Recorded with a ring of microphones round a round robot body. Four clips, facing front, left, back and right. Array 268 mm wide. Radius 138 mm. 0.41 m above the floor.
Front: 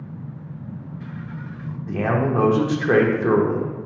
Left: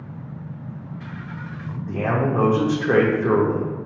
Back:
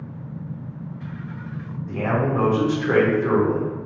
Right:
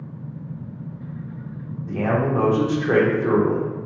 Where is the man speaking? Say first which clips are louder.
Right 1 dB, front 1 dB; 5° left, 0.8 m.